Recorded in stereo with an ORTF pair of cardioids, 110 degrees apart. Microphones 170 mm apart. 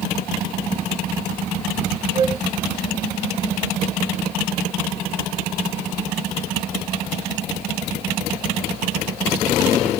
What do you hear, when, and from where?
2.1 s a flute: 40° right, 1.4 m